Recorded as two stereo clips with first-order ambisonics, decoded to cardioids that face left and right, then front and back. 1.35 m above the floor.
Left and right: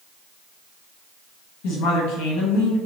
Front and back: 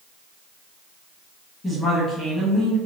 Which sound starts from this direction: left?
A woman speaking, at 1.6 s.